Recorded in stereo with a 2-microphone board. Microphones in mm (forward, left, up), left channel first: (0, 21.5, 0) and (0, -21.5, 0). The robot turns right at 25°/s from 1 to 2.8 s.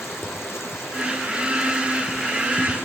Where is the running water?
75° left, 2.5 m; by 2.9 s 120° left, 2.5 m.